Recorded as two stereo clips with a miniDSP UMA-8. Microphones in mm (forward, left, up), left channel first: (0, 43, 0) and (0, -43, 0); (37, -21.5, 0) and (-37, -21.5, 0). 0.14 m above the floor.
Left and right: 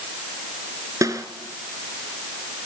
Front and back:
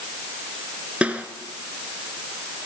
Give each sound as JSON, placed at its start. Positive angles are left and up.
{"t": 1.0, "sound": "a snare drum", "azimuth_deg": -115, "distance_m": 1.8}